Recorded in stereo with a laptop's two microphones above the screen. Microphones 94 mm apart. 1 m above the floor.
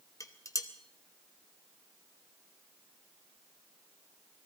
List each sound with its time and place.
0.2 s dishes clattering: 35° left (ahead or behind), 0.8 m